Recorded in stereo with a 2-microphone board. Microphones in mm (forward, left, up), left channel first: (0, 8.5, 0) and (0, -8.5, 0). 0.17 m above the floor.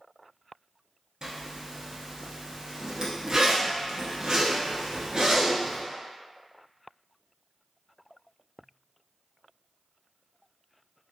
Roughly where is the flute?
I don't hear a flute.